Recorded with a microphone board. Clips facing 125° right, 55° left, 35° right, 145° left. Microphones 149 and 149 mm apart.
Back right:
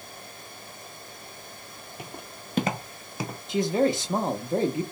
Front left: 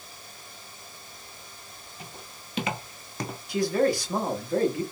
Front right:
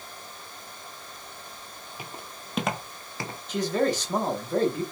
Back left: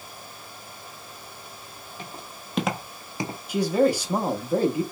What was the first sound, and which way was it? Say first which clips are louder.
Footsteps: back right 4 dB, back left 1 dB; 115° right.